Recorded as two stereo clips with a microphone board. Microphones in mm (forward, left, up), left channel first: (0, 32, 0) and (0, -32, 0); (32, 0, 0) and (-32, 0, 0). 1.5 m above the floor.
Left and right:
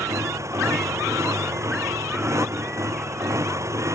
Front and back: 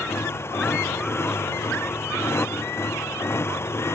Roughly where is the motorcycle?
Ahead right.